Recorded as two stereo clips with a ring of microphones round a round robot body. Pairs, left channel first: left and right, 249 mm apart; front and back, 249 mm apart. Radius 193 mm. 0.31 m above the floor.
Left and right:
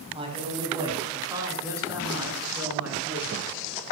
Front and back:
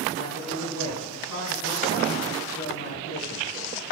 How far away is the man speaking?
About 2.5 m.